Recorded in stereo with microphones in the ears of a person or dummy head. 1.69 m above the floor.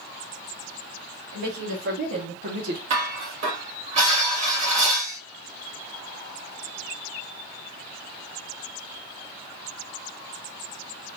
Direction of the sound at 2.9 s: 40° right (ahead or behind).